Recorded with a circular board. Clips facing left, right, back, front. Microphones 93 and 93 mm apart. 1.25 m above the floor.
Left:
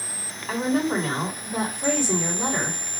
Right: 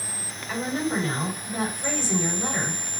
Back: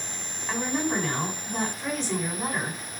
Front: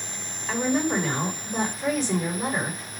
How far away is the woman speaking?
About 4 m.